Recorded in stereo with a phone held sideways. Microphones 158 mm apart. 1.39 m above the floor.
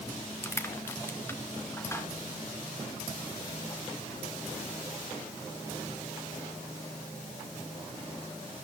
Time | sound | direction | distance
0.4 | crushing | 15° left (ahead or behind) | 1.9 m